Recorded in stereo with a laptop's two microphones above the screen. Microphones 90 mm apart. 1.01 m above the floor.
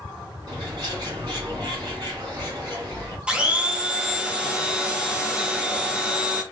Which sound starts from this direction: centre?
A blender, at 3.3 s.